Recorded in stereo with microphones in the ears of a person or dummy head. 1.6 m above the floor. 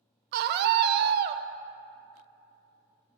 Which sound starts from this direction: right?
A scream, at 0.3 s.